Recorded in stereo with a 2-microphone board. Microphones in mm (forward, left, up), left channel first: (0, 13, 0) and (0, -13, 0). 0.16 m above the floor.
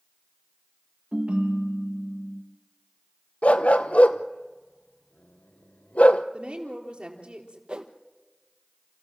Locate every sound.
1.1 s a ringtone: 60° right (ahead or behind), 3 m
3.4 s a dog barking: 70° left (ahead or behind), 1.0 m
6.3 s a woman speaking: 50° right (ahead or behind), 4 m
7.7 s a whoosh: 40° right (ahead or behind), 1.6 m